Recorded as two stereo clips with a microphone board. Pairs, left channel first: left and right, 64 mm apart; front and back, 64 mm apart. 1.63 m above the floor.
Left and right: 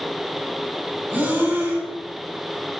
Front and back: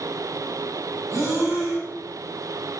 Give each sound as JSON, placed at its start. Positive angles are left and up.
{"t": 1.1, "sound": "breathing", "azimuth_deg": -150, "distance_m": 5.5}